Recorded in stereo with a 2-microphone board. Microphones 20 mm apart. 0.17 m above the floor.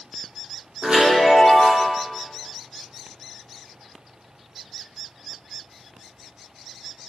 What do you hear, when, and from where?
0.8 s a chime: 70° right (ahead or behind), 4.5 m